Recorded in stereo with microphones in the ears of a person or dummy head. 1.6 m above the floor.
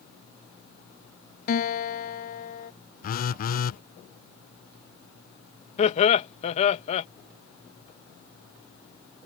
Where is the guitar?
55° left (ahead or behind).